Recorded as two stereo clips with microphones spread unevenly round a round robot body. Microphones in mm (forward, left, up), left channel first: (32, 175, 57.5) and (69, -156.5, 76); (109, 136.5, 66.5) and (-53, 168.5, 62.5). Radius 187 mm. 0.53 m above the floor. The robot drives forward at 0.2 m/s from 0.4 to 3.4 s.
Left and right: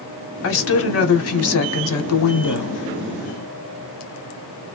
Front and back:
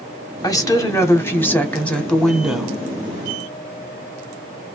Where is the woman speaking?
55° left, 1.2 m; by 2.8 s 85° left, 1.1 m.